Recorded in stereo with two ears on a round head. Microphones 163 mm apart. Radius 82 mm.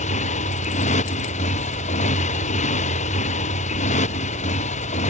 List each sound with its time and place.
0.0 s a motorcycle: 40° left (ahead or behind)